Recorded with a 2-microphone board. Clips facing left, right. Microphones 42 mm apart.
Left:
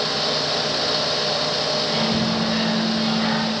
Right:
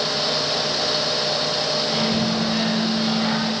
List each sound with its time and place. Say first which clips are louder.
1.8 s a microwave: even; 10° left (ahead or behind), 2.5 m